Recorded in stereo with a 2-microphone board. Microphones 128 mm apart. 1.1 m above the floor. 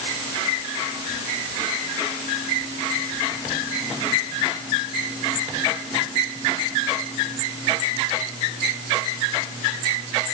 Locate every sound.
Only background noise.